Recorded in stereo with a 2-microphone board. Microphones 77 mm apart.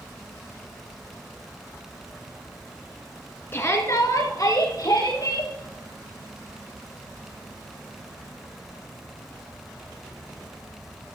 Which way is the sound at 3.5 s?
30° left (ahead or behind).